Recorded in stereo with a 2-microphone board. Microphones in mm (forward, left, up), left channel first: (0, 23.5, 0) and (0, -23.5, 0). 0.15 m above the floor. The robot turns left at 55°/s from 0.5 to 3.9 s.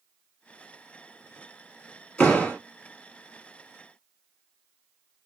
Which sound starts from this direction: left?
A door slam, at 2.2 s.